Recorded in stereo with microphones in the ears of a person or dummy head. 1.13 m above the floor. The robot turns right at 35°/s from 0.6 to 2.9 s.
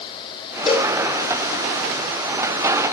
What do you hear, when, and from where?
0.7 s a cowbell: 35° left (ahead or behind), 3 m; by 1.0 s 25° left (ahead or behind), 3 m